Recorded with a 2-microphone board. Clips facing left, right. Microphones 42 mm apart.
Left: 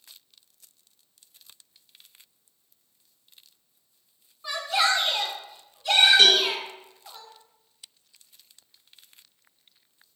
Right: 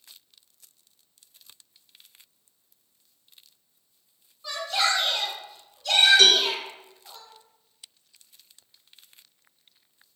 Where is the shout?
25° left (ahead or behind), 1.3 m.